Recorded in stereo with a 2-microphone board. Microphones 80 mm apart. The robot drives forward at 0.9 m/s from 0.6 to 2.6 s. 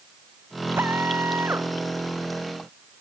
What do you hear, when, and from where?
0.8 s a drill: 30° right (ahead or behind)